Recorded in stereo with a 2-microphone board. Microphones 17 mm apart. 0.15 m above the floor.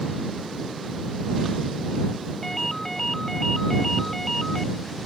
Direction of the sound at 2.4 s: 20° left (ahead or behind).